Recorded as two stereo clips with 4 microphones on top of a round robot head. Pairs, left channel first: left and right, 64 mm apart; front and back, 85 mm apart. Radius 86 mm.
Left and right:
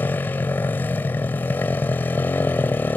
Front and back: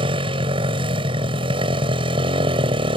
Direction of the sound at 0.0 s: 160° left.